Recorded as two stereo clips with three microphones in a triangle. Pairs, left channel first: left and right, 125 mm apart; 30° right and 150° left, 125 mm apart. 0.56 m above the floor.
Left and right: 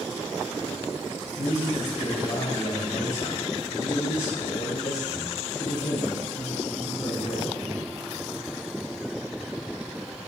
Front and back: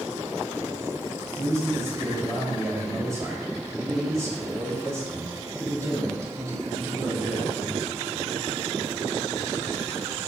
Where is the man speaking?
85° left, 2.5 m.